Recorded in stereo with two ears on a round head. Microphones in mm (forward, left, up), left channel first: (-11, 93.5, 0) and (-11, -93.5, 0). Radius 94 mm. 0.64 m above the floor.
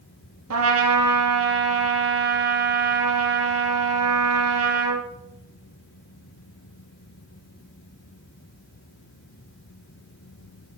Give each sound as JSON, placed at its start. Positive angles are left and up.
{"t": 0.5, "sound": "a trumpet", "side_deg": -80, "distance_m": 3.0}